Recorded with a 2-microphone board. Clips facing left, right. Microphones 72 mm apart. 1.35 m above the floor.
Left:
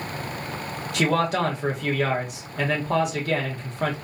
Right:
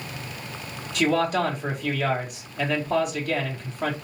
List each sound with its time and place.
0.9 s a man speaking: 85° left, 1.4 m